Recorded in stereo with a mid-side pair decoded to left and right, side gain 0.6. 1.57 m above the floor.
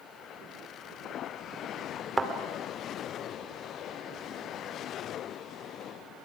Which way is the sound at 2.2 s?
15° right.